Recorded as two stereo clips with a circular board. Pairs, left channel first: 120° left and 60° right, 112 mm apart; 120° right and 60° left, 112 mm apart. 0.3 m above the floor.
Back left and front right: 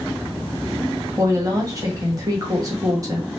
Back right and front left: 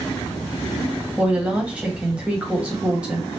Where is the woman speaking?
15° right, 1.4 m.